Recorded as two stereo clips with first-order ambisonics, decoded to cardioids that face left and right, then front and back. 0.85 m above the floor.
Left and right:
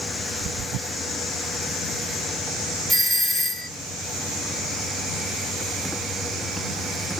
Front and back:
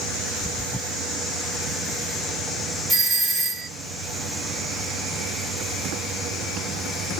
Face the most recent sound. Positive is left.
turn(degrees=160)